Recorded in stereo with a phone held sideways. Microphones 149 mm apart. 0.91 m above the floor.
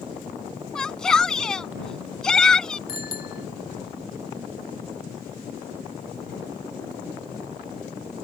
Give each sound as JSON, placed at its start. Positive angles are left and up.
{"t": 0.8, "sound": "a shout", "side_deg": 5}
{"t": 2.9, "sound": "a bicycle bell", "side_deg": 80}